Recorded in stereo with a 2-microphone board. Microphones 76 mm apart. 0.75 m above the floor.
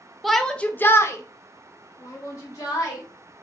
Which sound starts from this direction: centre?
A shout, at 0.2 s.